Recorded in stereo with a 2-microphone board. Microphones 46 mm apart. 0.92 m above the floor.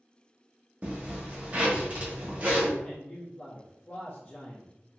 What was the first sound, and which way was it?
A zipper, 30° right (ahead or behind).